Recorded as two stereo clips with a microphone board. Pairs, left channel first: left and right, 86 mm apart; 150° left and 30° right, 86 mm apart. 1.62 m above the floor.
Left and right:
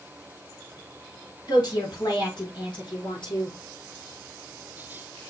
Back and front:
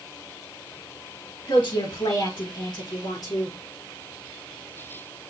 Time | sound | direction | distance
1.5 | a woman speaking | 125° left | 4.5 m